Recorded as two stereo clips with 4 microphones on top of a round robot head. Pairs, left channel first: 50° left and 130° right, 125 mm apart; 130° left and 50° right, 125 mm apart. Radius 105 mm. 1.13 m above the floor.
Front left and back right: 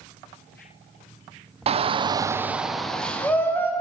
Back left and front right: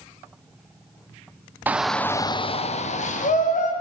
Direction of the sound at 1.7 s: 125° right.